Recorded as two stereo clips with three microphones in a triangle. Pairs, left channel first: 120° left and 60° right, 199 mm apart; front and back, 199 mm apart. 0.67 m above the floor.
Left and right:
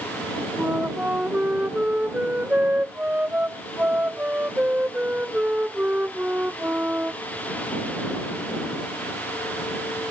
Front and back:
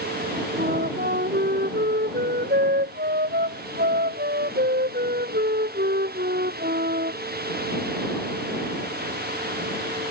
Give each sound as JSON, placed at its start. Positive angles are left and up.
{"t": 0.6, "sound": "a flute", "azimuth_deg": -140}